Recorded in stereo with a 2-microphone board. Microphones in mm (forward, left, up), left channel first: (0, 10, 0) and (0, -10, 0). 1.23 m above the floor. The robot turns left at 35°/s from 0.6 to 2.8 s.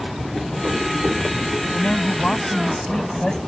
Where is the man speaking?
75° left; by 3.4 s 40° left.